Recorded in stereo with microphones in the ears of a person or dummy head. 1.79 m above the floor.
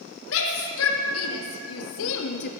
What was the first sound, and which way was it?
A shout, 75° left (ahead or behind).